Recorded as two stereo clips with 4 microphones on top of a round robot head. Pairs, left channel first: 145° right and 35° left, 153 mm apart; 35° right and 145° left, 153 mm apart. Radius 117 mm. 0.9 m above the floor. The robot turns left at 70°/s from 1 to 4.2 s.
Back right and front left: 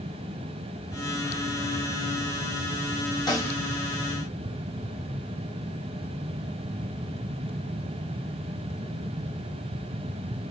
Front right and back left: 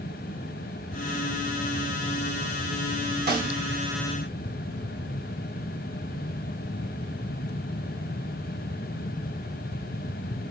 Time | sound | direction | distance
3.3 | a snare drum | 155° left | 1.3 m